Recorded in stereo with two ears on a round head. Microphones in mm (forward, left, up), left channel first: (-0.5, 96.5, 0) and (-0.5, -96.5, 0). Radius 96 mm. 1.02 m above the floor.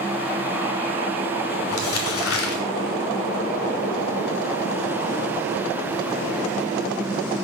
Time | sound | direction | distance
1.7 | crumpling | 65° left (ahead or behind) | 1.9 m